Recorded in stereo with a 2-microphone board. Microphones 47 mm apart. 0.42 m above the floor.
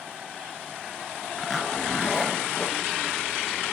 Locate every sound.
1.4 s a zipper: 5° left (ahead or behind), 1.6 m